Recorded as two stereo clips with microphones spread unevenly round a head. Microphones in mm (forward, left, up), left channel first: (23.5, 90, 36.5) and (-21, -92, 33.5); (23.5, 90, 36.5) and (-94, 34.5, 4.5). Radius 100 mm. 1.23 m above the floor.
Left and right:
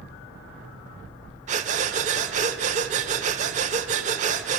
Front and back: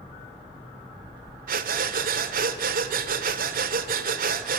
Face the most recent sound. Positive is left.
turn(degrees=-150)